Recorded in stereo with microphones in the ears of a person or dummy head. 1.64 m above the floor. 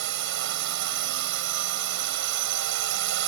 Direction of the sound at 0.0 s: 65° right (ahead or behind).